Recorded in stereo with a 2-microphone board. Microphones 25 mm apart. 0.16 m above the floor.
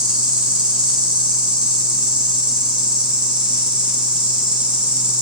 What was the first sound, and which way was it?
An insect, 50° right (ahead or behind).